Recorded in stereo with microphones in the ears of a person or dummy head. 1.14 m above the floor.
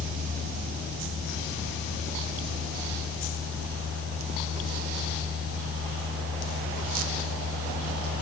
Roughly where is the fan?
Right.